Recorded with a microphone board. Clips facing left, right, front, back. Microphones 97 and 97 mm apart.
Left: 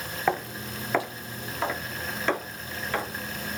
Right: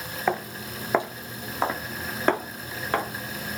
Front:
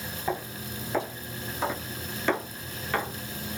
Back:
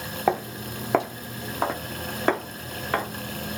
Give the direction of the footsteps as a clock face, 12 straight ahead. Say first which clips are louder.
Even, back 8 dB; 6 o'clock.